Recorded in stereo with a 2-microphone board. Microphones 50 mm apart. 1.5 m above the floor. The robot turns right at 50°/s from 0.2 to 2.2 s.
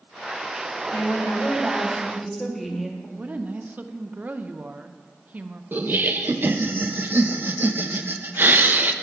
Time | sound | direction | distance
0.9 | a woman speaking | 110° left | 1.5 m
3.2 | a woman speaking | 35° right (ahead or behind) | 0.6 m
5.7 | laughter | 45° right (ahead or behind) | 0.7 m